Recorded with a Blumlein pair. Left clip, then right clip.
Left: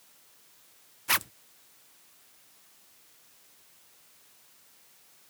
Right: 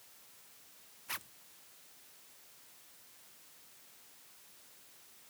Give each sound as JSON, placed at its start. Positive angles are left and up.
{"t": 1.1, "sound": "a zipper", "azimuth_deg": 35}